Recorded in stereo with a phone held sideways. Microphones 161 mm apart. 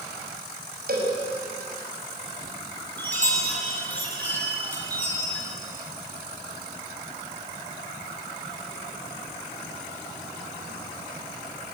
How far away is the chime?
About 6.5 m.